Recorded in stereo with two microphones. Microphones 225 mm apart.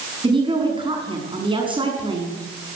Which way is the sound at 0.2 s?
20° right (ahead or behind).